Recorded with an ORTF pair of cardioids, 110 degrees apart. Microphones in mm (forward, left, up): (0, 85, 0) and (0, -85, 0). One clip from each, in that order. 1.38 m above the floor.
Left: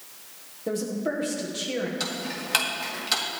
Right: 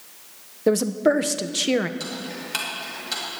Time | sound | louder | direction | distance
0.7 | a woman speaking | right 9 dB | 55° right | 0.8 m
2.0 | ticking | left 1 dB | 30° left | 2 m